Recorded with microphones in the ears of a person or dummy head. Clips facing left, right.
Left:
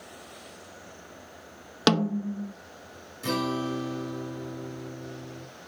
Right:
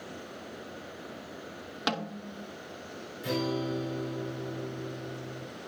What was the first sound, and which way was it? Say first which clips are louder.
A snare drum: left 11 dB; 70° left (ahead or behind).